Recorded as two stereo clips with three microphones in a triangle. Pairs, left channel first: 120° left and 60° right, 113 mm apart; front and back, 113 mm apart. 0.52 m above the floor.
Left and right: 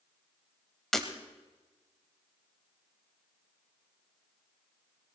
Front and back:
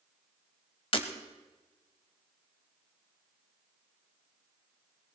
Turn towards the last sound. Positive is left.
turn(degrees=35)